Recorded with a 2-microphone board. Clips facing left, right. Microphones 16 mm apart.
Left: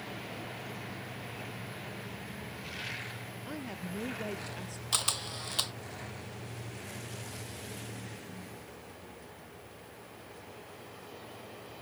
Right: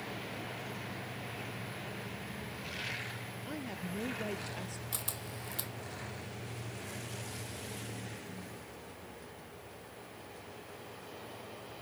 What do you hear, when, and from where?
3.5 s a woman speaking: 5° left (ahead or behind); by 4.8 s centre (ahead or behind)
4.9 s a camera shutter: 50° left (ahead or behind)